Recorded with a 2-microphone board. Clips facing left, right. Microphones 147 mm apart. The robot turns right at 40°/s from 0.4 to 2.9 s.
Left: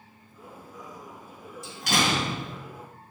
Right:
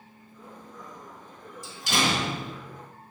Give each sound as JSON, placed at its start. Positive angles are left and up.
{"t": 1.6, "sound": "a door slam", "azimuth_deg": 105, "distance_m": 2.5}